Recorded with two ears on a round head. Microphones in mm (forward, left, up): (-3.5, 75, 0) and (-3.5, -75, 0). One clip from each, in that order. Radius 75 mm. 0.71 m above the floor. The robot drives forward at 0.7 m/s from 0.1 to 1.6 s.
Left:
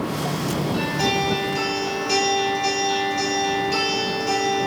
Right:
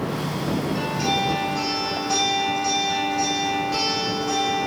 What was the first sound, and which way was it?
A guitar, 65° left (ahead or behind).